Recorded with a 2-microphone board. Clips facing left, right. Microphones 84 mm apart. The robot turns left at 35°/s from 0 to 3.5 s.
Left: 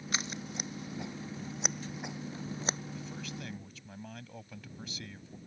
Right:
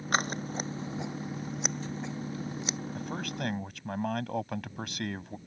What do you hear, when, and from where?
0.1 s scissors: 55° right (ahead or behind); by 2.8 s 40° left (ahead or behind)
3.0 s a man speaking: 55° right (ahead or behind); by 5.4 s 70° right (ahead or behind)